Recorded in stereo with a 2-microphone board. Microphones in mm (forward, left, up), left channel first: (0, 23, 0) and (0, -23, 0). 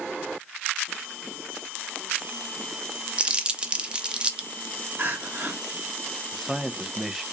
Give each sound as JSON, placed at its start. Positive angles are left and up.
{"t": 3.2, "sound": "crumpling", "side_deg": -25, "distance_m": 0.6}
{"t": 5.0, "sound": "crying", "side_deg": -45, "distance_m": 1.2}
{"t": 6.3, "sound": "a man speaking", "side_deg": 0, "distance_m": 0.6}